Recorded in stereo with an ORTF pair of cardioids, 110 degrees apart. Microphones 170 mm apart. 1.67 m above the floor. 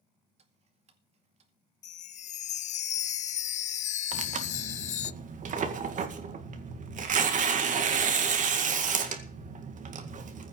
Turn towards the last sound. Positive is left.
turn(degrees=-50)